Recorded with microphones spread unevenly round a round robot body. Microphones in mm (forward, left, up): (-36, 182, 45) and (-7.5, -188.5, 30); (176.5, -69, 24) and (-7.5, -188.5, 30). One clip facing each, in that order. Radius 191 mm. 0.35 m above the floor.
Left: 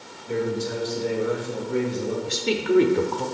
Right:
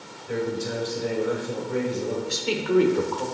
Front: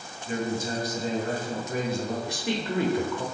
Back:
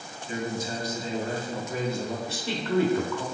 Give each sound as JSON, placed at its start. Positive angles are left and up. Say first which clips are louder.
{"t": 0.3, "sound": "a man speaking", "louder": "left 2 dB, front 2 dB", "azimuth_deg": 10, "distance_m": 2.5}
{"t": 2.3, "sound": "a woman speaking", "louder": "left 5 dB, even", "azimuth_deg": 85, "distance_m": 0.9}